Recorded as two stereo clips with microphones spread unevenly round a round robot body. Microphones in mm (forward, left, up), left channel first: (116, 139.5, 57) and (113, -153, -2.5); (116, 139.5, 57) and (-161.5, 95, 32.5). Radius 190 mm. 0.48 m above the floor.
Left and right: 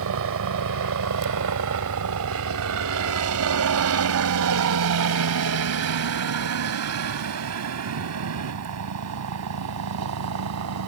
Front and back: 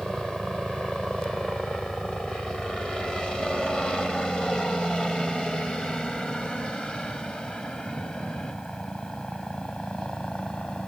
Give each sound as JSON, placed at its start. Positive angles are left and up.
{"t": 0.0, "sound": "a helicopter", "azimuth_deg": -80}